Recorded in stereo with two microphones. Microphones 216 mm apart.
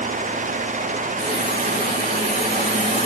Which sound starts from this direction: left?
A hiss, at 1.2 s.